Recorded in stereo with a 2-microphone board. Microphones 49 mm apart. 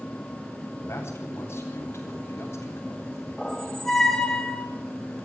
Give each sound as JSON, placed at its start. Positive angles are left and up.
{"t": 0.8, "sound": "a man speaking", "side_deg": 55, "distance_m": 10.0}
{"t": 3.4, "sound": "a squeak", "side_deg": 10, "distance_m": 3.0}